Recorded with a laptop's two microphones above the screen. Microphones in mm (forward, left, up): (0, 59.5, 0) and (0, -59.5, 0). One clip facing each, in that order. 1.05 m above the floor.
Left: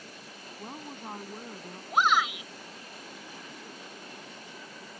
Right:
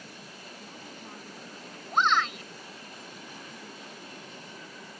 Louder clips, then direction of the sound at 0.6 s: Left 7 dB; 55° left (ahead or behind).